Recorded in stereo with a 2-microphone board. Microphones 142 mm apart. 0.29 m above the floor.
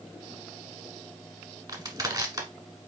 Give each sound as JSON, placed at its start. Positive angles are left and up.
{"t": 1.7, "sound": "crushing", "side_deg": -25, "distance_m": 1.2}